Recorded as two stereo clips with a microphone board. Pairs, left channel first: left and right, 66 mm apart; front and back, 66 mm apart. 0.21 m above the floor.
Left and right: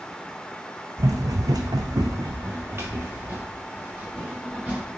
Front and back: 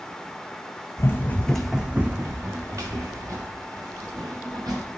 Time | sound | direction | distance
1.0 | running footsteps | 50° right | 0.7 m